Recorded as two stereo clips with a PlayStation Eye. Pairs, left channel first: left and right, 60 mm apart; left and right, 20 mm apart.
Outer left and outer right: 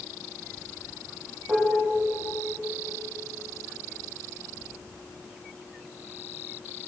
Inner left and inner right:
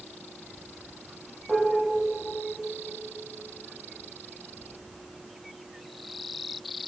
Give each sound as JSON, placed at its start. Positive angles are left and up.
{"t": 1.5, "sound": "dishes clattering", "side_deg": -20, "distance_m": 5.5}